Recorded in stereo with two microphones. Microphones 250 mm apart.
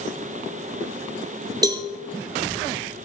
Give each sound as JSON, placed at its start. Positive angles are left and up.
{"t": 1.6, "sound": "a cowbell", "side_deg": -15, "distance_m": 1.6}